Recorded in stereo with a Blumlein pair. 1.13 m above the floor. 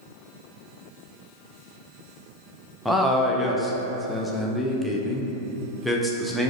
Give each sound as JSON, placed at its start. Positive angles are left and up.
{"t": 2.9, "sound": "a man speaking", "azimuth_deg": 0, "distance_m": 0.5}